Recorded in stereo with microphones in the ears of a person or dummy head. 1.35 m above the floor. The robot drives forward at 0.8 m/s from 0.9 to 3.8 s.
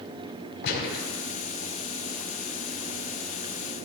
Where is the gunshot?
60° left (ahead or behind), 4.5 m.